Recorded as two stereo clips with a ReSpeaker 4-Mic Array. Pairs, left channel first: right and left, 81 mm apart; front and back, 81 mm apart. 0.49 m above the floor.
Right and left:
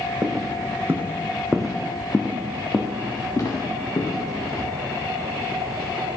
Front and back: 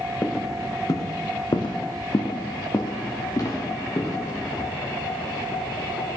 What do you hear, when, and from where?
0.2 s footsteps: 55° left, 1.3 m; by 4.7 s 50° right, 3 m